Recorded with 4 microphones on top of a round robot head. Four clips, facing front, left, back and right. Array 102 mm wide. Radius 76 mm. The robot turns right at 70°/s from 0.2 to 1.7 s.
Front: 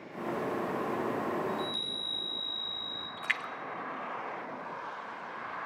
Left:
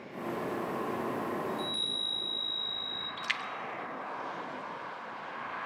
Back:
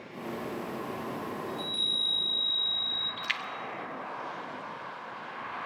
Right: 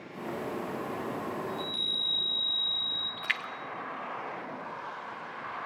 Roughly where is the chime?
Ahead left.